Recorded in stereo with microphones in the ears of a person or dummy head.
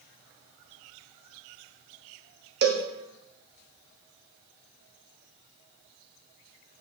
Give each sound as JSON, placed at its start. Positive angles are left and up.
{"t": 2.6, "sound": "a cowbell", "side_deg": -50, "distance_m": 1.0}